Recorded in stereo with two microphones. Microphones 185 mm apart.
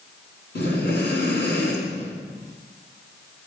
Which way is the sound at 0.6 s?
70° left (ahead or behind).